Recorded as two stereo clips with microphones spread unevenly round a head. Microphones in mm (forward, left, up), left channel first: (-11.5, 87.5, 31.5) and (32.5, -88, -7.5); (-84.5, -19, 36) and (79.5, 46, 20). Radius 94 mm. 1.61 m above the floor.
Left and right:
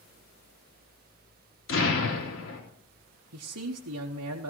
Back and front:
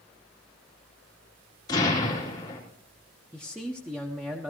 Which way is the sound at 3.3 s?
60° right.